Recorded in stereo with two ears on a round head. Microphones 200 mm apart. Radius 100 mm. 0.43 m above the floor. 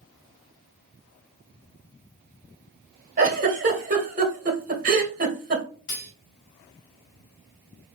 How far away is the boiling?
I don't hear boiling.